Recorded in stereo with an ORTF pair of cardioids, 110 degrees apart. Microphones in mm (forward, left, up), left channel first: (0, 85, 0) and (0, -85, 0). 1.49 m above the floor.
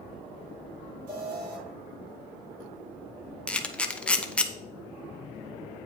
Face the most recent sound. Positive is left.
turn(degrees=5)